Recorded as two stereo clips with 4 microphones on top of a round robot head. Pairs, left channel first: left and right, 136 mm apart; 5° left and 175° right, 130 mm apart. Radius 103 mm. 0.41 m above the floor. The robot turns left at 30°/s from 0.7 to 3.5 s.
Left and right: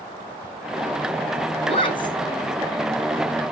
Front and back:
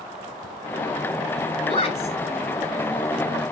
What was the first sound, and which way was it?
A woman speaking, 50° left.